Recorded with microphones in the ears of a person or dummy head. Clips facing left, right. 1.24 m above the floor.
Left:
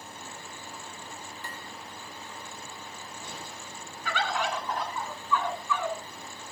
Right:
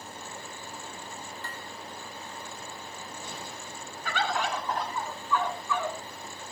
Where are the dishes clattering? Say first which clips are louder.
Right 1 dB; 15° left (ahead or behind), 2.5 m.